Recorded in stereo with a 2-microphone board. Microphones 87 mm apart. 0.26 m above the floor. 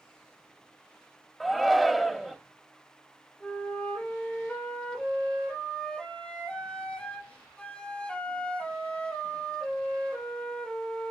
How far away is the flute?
About 3 m.